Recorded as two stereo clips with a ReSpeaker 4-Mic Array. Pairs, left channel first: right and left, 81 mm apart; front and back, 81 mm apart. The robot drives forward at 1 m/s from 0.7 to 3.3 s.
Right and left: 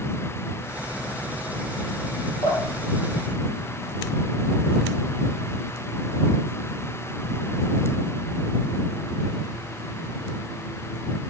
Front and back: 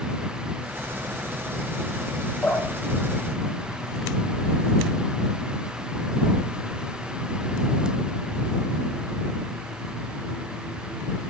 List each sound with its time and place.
2.4 s dripping: 80° right, 8.5 m; by 4.4 s 85° right, 8.5 m